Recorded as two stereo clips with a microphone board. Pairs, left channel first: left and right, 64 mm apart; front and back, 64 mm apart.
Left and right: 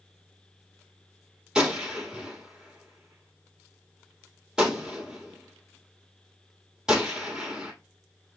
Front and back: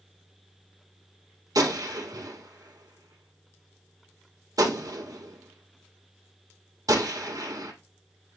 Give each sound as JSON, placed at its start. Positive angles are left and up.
{"t": 1.6, "sound": "a gunshot", "azimuth_deg": -170, "distance_m": 2.5}